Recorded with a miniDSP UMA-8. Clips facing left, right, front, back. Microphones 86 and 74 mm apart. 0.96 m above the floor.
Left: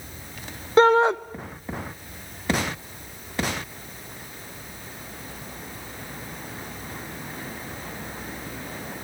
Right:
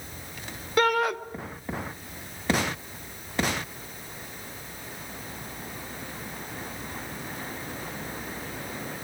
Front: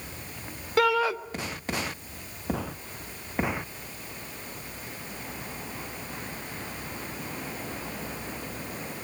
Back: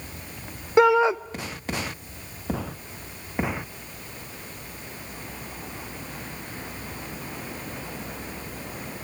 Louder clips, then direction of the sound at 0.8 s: Left 7 dB, back 6 dB; 130° left.